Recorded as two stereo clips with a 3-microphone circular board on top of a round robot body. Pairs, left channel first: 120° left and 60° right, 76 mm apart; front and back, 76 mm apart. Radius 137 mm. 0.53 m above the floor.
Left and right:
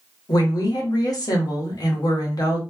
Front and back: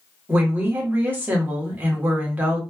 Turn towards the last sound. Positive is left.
turn(degrees=120)